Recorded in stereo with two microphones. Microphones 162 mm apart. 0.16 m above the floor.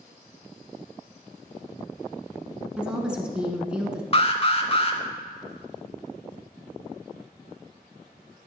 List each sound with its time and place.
2.8 s a woman speaking: 5° right (ahead or behind), 1.3 m
4.1 s an alarm: 40° left (ahead or behind), 0.9 m